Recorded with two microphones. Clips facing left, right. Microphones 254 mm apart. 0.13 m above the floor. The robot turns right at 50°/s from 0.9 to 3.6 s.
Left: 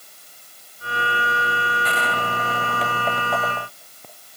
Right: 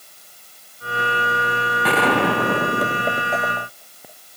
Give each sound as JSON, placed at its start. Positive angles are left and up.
{"t": 1.8, "sound": "a gunshot", "azimuth_deg": -95}